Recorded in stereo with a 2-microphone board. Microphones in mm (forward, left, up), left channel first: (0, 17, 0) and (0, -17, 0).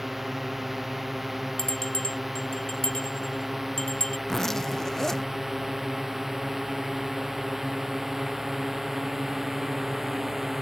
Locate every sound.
0.0 s a drone: 5° right (ahead or behind); by 10.6 s 10° right (ahead or behind)
1.6 s a bell: 20° left (ahead or behind)
4.3 s a zipper: 10° left (ahead or behind)